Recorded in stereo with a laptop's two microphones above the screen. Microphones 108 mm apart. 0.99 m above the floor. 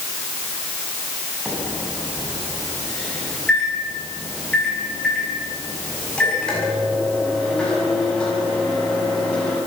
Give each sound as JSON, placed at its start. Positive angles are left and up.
{"t": 1.4, "sound": "a microwave", "side_deg": 10, "distance_m": 6.5}